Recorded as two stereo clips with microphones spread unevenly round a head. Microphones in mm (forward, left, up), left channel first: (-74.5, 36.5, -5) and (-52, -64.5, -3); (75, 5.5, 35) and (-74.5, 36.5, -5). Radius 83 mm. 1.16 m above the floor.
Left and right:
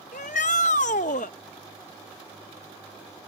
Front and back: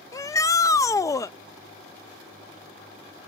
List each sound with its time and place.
0.1 s a shout: 60° left